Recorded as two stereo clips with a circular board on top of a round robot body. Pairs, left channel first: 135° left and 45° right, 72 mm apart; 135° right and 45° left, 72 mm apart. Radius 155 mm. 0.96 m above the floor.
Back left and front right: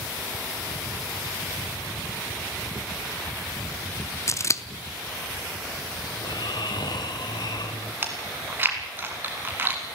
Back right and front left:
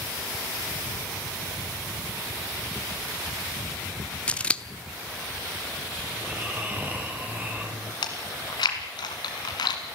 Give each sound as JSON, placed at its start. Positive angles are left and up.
{"t": 4.3, "sound": "scissors", "azimuth_deg": 155, "distance_m": 1.0}
{"t": 6.2, "sound": "snoring", "azimuth_deg": 110, "distance_m": 3.5}
{"t": 8.0, "sound": "chewing", "azimuth_deg": -110, "distance_m": 1.6}